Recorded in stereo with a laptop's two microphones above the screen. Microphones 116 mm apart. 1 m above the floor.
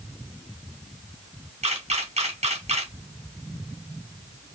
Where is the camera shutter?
70° right (ahead or behind), 1.8 m.